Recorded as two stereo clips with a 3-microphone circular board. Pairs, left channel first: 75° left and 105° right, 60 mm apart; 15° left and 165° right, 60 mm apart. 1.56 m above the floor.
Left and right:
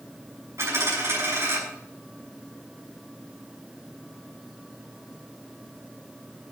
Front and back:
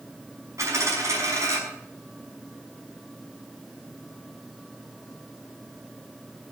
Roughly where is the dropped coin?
Behind right.